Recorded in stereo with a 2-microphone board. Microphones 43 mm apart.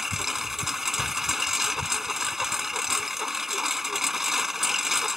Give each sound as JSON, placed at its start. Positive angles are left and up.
{"t": 0.0, "sound": "a lawn mower", "side_deg": -10}